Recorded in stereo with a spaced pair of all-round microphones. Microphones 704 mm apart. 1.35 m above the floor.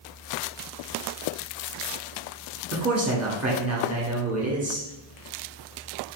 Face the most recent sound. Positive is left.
turn(degrees=-25)  # may be behind; listen again after turning